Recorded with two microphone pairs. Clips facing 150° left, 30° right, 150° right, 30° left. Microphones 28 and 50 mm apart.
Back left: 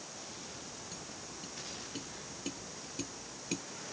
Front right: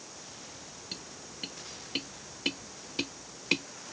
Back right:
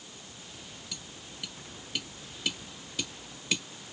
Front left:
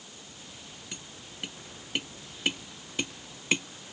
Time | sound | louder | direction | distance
0.9 | tapping | front right 3 dB, even | 20° right | ?